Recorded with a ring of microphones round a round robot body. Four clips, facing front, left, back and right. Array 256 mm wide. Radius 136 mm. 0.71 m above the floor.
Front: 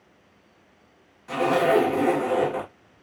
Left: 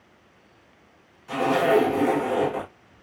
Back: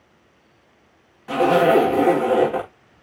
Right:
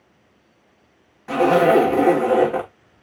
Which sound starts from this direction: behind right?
A zipper, at 1.3 s.